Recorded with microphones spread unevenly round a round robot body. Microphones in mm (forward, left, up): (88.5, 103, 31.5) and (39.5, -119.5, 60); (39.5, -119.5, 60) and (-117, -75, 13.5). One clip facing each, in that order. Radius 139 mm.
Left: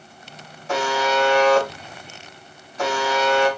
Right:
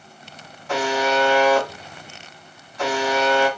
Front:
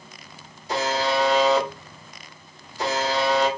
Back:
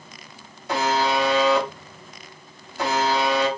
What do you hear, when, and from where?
0.7 s a buzzer: 145° left, 1.3 m